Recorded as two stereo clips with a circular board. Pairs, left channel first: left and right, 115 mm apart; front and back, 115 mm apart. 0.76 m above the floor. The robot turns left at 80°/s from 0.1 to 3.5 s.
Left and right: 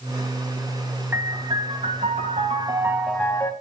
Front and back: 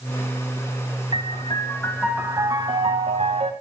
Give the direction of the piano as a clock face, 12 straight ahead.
1 o'clock.